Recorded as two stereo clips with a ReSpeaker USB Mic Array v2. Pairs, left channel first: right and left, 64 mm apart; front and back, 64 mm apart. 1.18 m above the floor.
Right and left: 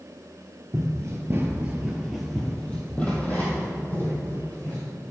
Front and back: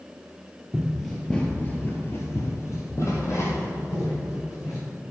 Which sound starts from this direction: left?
Running footsteps, at 0.7 s.